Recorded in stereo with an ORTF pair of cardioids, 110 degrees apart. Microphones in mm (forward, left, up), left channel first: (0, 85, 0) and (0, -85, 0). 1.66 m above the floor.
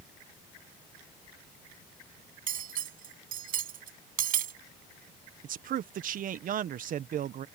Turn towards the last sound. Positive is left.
turn(degrees=-55)